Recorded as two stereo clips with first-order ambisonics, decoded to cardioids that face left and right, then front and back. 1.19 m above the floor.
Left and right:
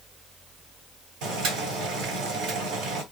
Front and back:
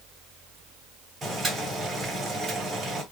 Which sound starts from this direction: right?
Boiling, at 1.2 s.